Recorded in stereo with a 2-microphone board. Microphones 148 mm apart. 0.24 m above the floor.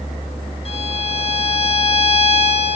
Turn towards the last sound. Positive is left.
turn(degrees=45)  # may be behind; listen again after turning